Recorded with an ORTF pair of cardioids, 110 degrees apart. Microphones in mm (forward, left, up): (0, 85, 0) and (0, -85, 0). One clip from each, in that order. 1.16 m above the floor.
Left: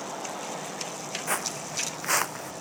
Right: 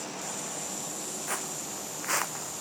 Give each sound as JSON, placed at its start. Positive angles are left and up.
{"t": 1.3, "sound": "footsteps", "azimuth_deg": 35}